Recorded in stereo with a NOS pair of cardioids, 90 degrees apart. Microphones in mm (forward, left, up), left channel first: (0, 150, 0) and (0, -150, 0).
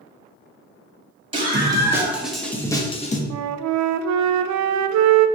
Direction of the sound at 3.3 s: 70° right.